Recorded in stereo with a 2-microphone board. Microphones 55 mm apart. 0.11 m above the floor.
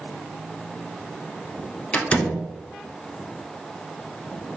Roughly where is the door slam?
Left.